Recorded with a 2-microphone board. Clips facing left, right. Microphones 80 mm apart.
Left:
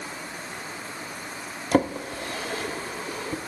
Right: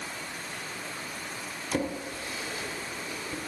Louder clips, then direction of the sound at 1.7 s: Left 8 dB; 60° left (ahead or behind).